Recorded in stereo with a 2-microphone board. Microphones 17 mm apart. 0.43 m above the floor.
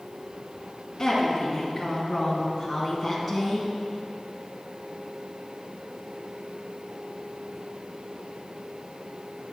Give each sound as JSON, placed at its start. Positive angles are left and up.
{"t": 1.0, "sound": "a woman speaking", "side_deg": 25, "distance_m": 4.0}